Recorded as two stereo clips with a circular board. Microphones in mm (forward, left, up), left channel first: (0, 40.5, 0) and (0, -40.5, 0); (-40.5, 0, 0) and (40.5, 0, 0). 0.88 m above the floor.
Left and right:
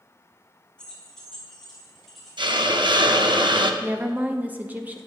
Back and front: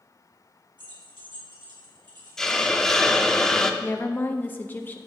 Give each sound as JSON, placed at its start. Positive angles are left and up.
{"t": 0.8, "sound": "keys jangling", "azimuth_deg": 10, "distance_m": 2.0}
{"t": 2.4, "sound": "a hiss", "azimuth_deg": -95, "distance_m": 0.7}
{"t": 3.8, "sound": "a woman speaking", "azimuth_deg": -140, "distance_m": 0.6}